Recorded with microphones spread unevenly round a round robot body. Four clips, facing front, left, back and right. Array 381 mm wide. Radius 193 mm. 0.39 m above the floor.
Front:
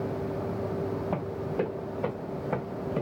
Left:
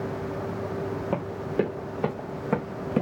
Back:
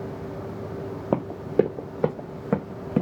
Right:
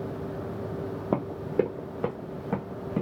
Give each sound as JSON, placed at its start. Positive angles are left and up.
{"t": 1.1, "sound": "running footsteps", "azimuth_deg": -170, "distance_m": 0.9}